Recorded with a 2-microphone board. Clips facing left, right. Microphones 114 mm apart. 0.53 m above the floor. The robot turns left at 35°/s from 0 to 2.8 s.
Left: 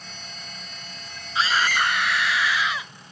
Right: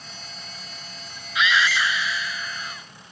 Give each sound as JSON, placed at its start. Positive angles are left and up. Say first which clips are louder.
{"t": 1.4, "sound": "a scream", "louder": "even", "azimuth_deg": 150}